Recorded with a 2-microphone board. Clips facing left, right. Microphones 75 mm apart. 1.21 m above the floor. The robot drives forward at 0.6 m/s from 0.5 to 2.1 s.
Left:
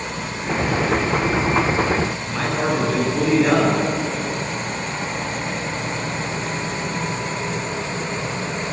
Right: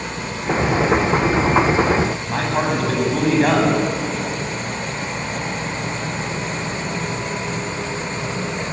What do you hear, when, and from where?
2.3 s a man speaking: 60° right (ahead or behind), 9 m